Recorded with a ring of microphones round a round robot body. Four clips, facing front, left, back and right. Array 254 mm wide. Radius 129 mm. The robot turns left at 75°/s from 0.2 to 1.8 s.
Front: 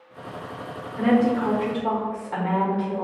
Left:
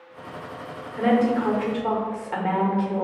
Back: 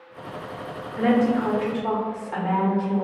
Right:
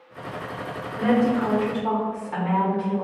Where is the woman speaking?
155° left, 0.7 m; by 3.0 s 95° left, 0.7 m.